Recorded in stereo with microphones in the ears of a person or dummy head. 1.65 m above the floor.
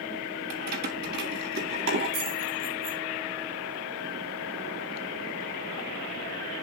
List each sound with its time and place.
0.5 s keys jangling: 50° right (ahead or behind), 1.4 m; by 3.0 s 70° right (ahead or behind), 3 m